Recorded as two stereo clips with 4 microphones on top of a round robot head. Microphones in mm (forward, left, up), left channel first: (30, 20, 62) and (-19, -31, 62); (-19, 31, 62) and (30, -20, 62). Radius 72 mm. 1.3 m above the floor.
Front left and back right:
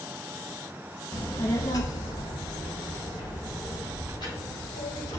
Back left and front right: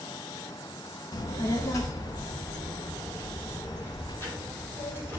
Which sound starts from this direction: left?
A child speaking, at 1.1 s.